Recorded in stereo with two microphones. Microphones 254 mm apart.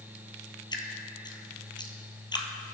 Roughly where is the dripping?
Centre.